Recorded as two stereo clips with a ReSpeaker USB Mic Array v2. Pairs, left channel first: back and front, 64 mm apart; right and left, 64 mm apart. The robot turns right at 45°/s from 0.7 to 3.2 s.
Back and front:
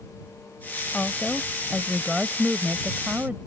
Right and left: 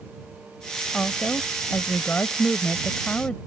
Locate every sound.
0.9 s a woman speaking: 140° right; by 3.4 s 40° right